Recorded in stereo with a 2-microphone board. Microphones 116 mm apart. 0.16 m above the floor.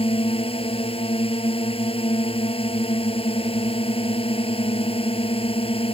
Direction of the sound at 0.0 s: 55° left (ahead or behind).